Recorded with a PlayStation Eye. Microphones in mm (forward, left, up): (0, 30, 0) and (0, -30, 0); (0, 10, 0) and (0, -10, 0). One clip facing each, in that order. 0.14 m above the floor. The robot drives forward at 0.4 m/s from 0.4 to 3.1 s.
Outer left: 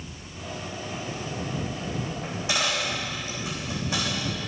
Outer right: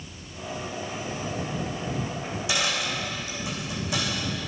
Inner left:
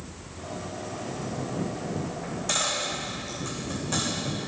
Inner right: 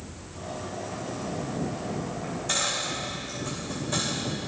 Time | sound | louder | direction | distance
2.2 | a dropped coin | outer left 1 dB, even | 35° left (ahead or behind) | 4 m